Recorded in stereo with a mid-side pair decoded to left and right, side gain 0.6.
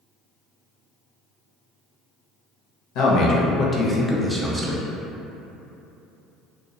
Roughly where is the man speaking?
Left.